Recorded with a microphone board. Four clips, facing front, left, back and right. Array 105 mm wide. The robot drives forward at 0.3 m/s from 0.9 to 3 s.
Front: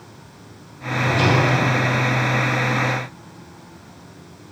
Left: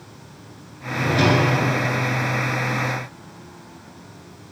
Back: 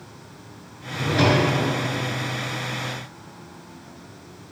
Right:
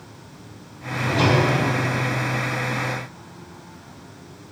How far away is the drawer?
About 2 m.